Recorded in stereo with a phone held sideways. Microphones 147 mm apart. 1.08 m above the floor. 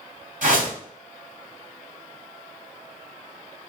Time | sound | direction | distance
0.4 | a whoosh | 70° right (ahead or behind) | 2.5 m